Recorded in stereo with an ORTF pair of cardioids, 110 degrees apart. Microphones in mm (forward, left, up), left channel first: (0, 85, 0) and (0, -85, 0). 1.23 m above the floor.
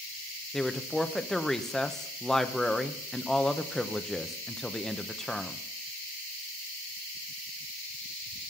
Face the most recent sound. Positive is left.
turn(degrees=5)